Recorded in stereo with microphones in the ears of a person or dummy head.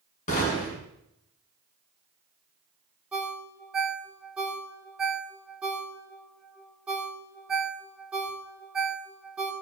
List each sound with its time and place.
0.3 s a gunshot: 40° left (ahead or behind), 5 m
3.1 s a ringtone: 5° right (ahead or behind), 2.0 m